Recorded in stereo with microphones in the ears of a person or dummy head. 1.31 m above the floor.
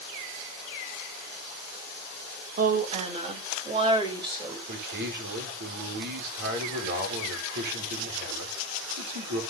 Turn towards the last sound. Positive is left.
turn(degrees=-55)  # may be behind; listen again after turning